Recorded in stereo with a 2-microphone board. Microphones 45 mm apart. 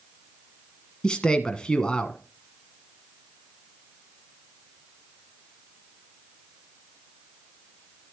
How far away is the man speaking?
About 1.1 m.